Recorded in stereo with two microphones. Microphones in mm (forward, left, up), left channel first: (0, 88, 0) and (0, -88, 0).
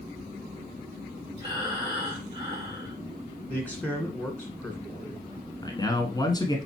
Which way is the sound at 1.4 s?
25° right (ahead or behind).